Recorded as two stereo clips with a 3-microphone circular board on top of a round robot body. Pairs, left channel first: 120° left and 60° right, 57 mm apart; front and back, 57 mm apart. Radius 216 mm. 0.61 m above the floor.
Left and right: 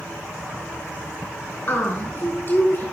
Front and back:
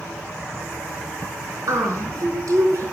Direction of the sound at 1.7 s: 170° left.